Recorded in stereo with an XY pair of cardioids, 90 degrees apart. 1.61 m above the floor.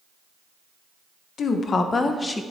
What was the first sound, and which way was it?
A woman speaking, 65° left.